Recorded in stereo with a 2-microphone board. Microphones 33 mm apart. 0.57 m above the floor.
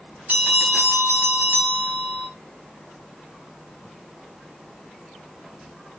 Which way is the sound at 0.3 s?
45° right (ahead or behind).